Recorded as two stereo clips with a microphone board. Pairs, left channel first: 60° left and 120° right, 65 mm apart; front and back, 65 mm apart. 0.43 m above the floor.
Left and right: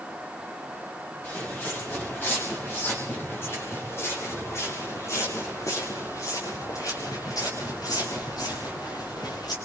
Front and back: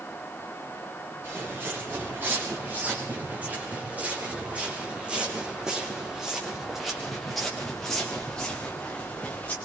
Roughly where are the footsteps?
Behind left.